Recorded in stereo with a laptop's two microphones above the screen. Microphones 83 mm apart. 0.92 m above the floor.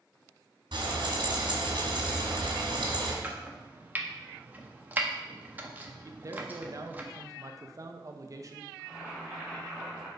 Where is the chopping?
20° right (ahead or behind), 0.5 m.